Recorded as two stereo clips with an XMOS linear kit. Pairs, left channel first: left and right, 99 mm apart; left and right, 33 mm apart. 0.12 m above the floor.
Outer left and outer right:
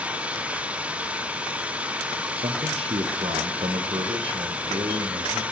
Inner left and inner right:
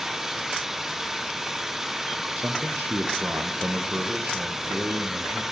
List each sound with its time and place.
0.0 s an engine running: 15° right (ahead or behind), 1.2 m
2.4 s a man speaking: 70° right (ahead or behind), 4 m